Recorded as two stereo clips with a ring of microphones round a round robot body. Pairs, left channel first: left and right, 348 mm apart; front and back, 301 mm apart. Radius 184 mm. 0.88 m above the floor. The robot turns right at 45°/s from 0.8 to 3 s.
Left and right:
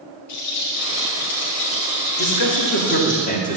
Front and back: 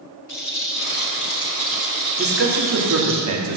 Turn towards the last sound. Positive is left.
turn(degrees=160)